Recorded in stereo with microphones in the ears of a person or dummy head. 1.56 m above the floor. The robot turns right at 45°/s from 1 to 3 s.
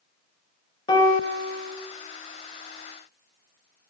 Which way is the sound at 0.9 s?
25° left.